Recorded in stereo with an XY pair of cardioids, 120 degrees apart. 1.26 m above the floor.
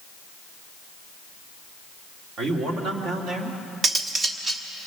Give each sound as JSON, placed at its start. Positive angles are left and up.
{"t": 2.4, "sound": "a man speaking", "azimuth_deg": -65, "distance_m": 3.0}
{"t": 3.8, "sound": "cutlery clinking", "azimuth_deg": -35, "distance_m": 1.5}